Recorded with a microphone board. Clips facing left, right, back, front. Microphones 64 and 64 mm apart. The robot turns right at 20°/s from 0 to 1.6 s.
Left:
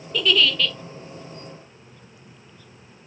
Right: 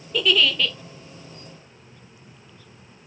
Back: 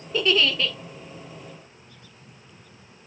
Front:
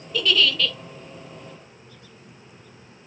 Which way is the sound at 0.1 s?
170° right.